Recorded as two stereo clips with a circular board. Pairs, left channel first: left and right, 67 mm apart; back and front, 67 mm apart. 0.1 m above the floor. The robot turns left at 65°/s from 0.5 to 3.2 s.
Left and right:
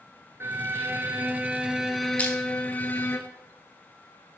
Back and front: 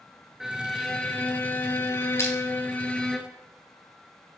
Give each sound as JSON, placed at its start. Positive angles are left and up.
{"t": 0.4, "sound": "a violin", "azimuth_deg": -80, "distance_m": 0.9}
{"t": 2.2, "sound": "crushing", "azimuth_deg": 150, "distance_m": 1.8}